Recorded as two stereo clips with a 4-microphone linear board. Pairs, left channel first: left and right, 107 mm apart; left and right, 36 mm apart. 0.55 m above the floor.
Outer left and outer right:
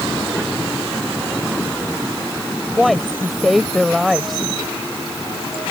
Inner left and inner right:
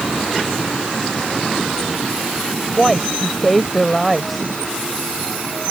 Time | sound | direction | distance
2.8 | a woman speaking | centre (ahead or behind) | ?